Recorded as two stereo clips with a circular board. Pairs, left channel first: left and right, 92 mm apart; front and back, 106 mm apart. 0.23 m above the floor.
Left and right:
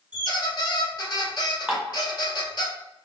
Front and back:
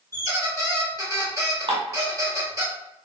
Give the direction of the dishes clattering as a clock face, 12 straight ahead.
6 o'clock.